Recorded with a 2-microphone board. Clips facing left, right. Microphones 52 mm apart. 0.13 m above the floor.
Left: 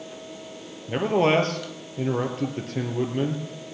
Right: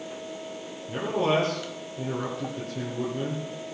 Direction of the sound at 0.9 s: 60° left (ahead or behind).